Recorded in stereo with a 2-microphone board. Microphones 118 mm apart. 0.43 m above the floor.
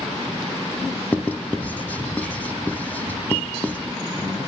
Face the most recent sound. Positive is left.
turn(degrees=15)  # may be behind; listen again after turning